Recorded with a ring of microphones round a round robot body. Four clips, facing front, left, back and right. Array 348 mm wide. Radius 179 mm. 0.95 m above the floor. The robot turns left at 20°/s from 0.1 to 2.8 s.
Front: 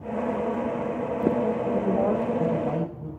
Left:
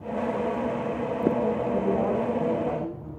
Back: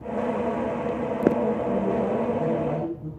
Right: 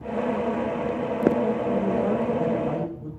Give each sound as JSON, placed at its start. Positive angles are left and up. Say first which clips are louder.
{"t": 1.7, "sound": "a woman speaking", "louder": "right 1 dB, front 1 dB", "azimuth_deg": -10, "distance_m": 5.0}